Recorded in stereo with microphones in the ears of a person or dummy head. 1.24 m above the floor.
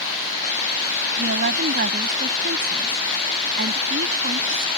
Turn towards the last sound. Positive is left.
turn(degrees=-45)  # may be behind; listen again after turning